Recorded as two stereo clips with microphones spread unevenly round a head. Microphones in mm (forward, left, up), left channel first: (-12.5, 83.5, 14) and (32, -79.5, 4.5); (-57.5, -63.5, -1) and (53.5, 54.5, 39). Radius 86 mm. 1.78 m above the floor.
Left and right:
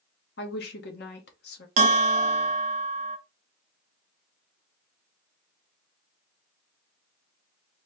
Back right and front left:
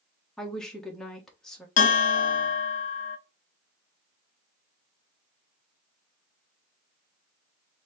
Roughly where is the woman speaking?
Behind left.